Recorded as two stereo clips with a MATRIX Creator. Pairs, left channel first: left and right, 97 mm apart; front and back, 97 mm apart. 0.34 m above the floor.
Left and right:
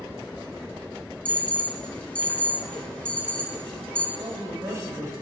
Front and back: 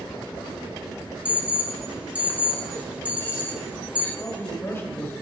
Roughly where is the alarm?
Behind left.